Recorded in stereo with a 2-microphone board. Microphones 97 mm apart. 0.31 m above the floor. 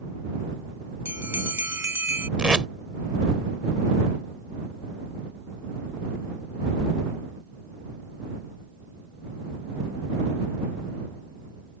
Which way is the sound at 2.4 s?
10° right (ahead or behind).